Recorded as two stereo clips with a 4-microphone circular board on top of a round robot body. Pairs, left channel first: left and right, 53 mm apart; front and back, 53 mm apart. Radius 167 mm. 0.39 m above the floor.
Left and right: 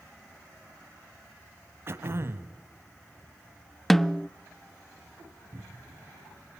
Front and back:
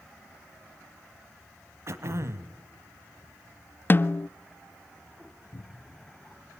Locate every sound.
1.9 s throat clearing: 140° right, 1.2 m
3.9 s a snare drum: 5° left, 0.5 m
5.5 s a cupboard door: 35° right, 3 m